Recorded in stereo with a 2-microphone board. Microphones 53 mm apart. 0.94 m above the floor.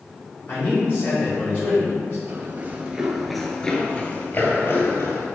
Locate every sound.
0.5 s a man speaking: 40° left (ahead or behind), 2.5 m
2.3 s running footsteps: 35° right (ahead or behind), 1.1 m; by 5.2 s 55° left (ahead or behind), 1.6 m